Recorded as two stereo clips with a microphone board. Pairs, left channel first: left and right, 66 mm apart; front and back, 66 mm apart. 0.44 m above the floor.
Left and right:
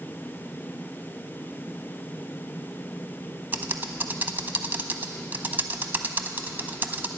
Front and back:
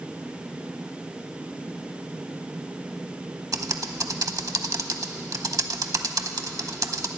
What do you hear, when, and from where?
3.5 s typing on a keyboard: 150° right, 0.7 m